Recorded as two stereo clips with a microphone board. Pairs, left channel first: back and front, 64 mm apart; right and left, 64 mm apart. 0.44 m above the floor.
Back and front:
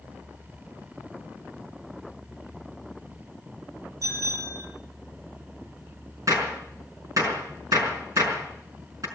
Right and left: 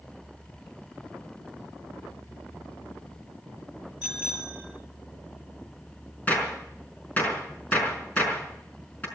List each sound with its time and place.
4.0 s a bicycle bell: 15° left, 7 m
6.3 s a gunshot: 25° right, 5 m